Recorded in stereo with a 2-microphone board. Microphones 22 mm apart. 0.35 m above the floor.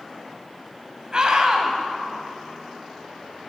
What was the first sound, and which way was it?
A scream, 40° right (ahead or behind).